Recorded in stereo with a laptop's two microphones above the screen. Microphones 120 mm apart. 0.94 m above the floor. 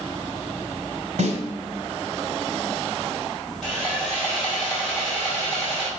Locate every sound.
1.2 s a snare drum: 80° right, 3 m
3.6 s sawing: centre (ahead or behind), 3 m